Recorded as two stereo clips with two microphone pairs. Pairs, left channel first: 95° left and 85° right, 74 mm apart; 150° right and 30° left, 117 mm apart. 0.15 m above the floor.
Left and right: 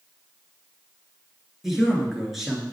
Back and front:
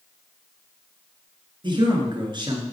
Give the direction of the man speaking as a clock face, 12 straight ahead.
12 o'clock.